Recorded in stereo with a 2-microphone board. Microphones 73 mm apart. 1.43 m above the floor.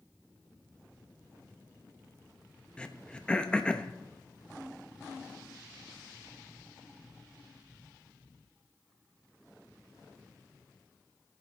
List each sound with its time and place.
2.8 s throat clearing: 15° left (ahead or behind), 0.7 m